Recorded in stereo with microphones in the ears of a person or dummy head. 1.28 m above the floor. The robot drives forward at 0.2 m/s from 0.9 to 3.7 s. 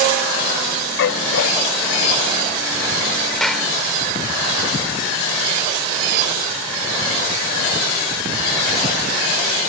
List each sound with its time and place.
1.0 s a dog barking: 65° left (ahead or behind)
3.4 s a clap: 5° left (ahead or behind)